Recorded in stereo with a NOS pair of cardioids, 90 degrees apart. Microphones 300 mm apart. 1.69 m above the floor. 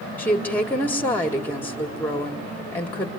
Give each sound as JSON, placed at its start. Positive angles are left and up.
{"t": 0.2, "sound": "a woman speaking", "azimuth_deg": 5, "distance_m": 1.7}